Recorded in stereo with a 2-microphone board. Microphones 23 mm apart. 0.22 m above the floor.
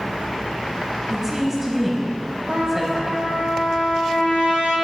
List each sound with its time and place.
1.1 s a woman speaking: 20° right (ahead or behind), 1.0 m
2.5 s a trumpet: 85° right, 2.5 m